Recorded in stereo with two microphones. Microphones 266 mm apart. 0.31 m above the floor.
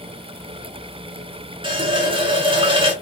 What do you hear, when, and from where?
1.6 s a running tap: 20° right (ahead or behind), 0.6 m